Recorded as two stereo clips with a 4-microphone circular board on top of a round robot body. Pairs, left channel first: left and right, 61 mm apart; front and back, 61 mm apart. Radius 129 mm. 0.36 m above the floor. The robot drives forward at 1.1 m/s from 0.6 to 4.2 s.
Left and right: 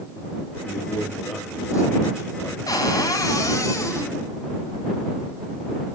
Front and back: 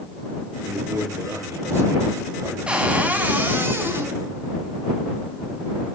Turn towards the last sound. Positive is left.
turn(degrees=130)